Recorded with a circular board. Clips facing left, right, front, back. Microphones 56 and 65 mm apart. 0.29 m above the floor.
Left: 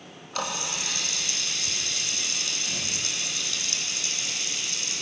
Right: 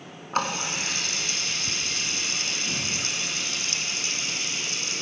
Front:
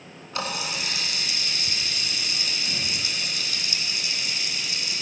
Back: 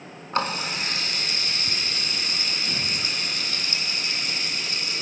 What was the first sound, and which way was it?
A running tap, 135° right.